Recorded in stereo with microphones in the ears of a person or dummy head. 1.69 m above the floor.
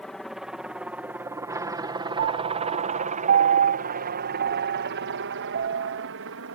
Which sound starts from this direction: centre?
A helicopter, at 0.0 s.